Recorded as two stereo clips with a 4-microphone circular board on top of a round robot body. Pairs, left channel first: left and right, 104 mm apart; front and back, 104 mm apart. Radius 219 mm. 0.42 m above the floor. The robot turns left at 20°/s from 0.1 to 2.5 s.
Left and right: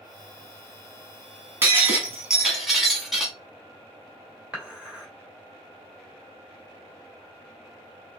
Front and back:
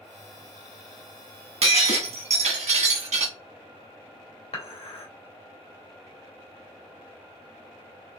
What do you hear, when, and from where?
1.6 s breaking glass: 160° right, 1.1 m; by 3.3 s straight behind, 1.1 m
4.5 s dishes clattering: 10° right, 2 m